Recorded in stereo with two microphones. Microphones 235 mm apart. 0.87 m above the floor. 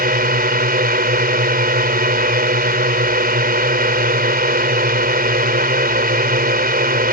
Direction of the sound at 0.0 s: 40° right (ahead or behind).